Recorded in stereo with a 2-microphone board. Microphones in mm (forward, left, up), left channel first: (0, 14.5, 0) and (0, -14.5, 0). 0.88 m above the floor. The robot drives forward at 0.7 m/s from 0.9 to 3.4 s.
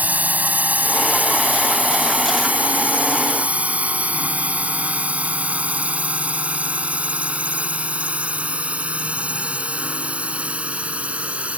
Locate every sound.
0.0 s a drone: 60° right (ahead or behind); by 11.6 s 45° right (ahead or behind)